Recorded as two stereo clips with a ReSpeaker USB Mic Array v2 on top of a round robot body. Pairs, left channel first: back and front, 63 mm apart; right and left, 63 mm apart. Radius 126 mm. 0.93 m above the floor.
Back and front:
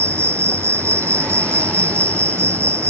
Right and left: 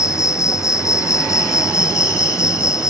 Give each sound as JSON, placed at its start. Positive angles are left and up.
{"t": 0.0, "sound": "an insect", "azimuth_deg": -50}